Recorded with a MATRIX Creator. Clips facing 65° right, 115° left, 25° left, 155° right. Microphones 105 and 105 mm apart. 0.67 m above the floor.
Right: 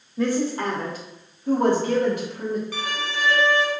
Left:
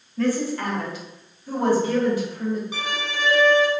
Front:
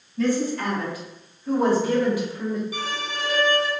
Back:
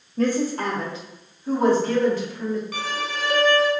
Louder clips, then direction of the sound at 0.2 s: Even, back 1 dB; 140° right.